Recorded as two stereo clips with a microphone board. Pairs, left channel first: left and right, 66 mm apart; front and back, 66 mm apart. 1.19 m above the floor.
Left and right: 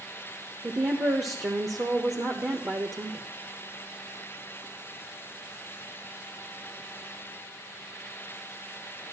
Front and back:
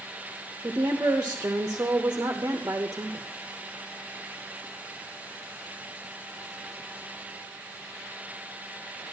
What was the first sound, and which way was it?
A woman speaking, 125° right.